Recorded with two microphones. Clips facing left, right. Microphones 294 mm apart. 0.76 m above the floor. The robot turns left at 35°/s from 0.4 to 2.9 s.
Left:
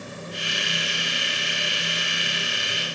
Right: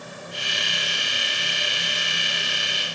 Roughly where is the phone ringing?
No phone ringing in this recording.